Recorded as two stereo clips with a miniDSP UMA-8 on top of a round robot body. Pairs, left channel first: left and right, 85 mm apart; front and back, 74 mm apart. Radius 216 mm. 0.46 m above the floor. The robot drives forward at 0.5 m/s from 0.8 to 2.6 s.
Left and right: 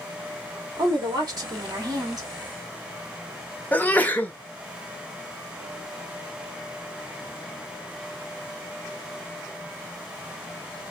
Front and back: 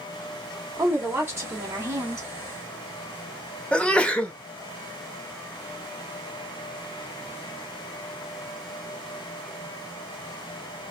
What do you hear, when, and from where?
0.8 s a woman speaking: 120° right, 2.5 m; by 2.3 s 135° right, 3 m
3.7 s a sneeze: 55° left, 1.4 m